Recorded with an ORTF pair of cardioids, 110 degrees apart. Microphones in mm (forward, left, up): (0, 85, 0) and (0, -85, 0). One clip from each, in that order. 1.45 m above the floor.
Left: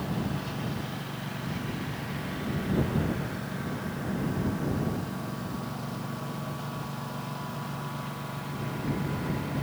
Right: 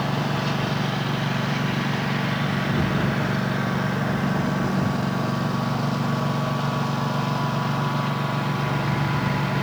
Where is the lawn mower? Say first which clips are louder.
Right 9 dB; 65° right.